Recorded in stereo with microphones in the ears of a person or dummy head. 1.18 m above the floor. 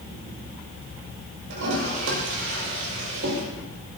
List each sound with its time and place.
1.5 s a toilet flushing: 75° right (ahead or behind), 5.5 m